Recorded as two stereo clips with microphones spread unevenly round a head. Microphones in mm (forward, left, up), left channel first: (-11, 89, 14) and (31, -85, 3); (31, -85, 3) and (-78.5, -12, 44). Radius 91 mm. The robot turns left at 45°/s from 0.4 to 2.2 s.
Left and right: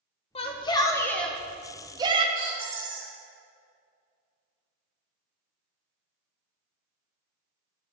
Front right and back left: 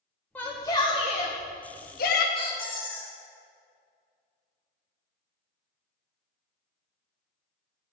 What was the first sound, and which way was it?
A shout, 60° left.